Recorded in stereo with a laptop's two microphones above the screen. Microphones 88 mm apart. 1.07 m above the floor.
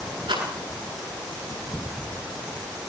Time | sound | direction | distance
0.3 | a rattle | 85° right | 9.5 m